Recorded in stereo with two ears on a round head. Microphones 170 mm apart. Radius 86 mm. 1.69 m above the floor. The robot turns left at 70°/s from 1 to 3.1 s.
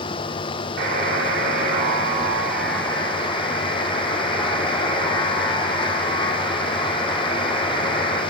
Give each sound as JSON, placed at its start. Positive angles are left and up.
{"t": 0.8, "sound": "a buzzer", "azimuth_deg": -65, "distance_m": 4.5}